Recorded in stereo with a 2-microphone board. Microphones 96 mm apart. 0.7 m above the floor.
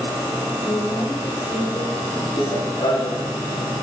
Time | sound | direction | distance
0.6 | a woman speaking | 65° left (ahead or behind) | 2.5 m
2.4 | running footsteps | 80° left | 4 m